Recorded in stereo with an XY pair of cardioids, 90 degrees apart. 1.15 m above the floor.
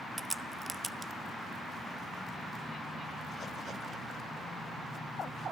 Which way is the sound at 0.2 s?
15° right.